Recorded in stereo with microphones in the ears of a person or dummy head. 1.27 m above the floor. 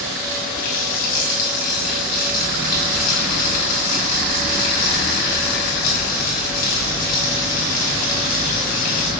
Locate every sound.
0.5 s a running tap: 45° left (ahead or behind), 5.5 m